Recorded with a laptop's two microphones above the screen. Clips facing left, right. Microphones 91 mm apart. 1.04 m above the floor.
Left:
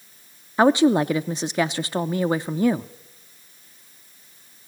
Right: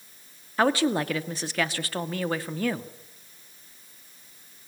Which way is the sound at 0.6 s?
20° left (ahead or behind).